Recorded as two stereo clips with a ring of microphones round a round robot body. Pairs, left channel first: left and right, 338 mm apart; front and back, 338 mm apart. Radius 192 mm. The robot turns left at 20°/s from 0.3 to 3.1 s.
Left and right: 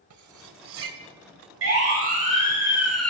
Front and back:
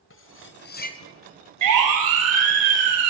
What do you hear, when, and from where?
0.1 s cutlery clinking: 55° right, 2.5 m; by 1.0 s 70° right, 2.5 m
1.6 s a siren: 145° right, 10 m; by 3.1 s 175° left, 9.5 m